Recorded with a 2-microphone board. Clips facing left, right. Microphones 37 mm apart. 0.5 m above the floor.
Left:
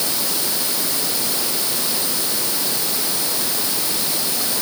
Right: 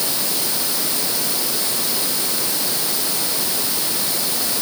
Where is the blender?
I don't hear a blender.